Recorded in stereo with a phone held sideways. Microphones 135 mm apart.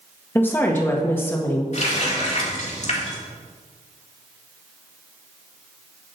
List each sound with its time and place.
0.3 s a woman speaking: 15° left (ahead or behind), 1.2 m
1.7 s a running tap: 55° left (ahead or behind), 1.8 m